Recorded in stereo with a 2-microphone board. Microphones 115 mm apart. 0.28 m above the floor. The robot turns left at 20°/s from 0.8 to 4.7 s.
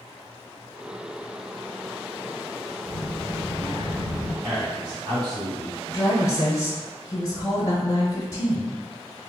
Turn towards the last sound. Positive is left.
turn(degrees=30)  # may be behind; listen again after turning